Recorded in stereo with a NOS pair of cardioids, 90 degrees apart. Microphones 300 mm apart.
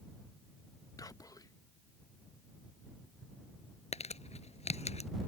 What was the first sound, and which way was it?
Whispering, 10° left.